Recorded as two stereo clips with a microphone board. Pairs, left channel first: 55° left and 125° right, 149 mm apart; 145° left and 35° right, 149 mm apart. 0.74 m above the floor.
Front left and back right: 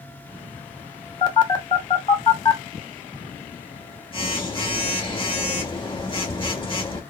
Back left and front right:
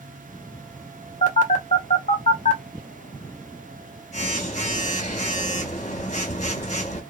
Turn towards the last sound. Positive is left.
turn(degrees=110)